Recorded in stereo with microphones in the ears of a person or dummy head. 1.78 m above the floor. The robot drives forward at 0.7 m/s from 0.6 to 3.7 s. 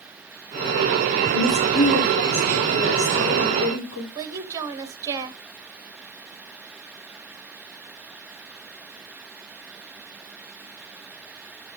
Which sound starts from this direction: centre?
A woman speaking, at 4.2 s.